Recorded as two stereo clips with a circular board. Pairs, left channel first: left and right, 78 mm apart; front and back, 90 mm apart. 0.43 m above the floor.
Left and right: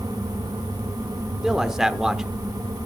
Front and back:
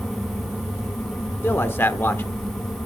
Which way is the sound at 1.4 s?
15° right.